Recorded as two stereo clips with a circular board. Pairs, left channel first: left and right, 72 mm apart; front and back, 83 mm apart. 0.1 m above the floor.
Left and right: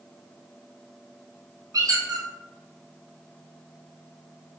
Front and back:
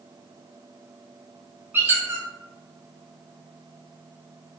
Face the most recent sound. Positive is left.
turn(degrees=-115)